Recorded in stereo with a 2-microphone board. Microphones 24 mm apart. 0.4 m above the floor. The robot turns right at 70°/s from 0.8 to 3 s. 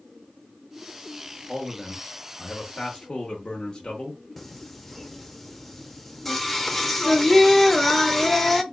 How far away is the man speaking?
About 0.9 m.